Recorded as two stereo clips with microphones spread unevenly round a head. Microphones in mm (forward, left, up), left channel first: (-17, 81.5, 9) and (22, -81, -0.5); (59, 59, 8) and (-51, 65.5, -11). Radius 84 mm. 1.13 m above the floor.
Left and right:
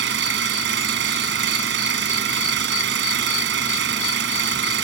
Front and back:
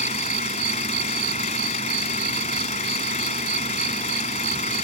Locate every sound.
0.0 s an engine running: 55° right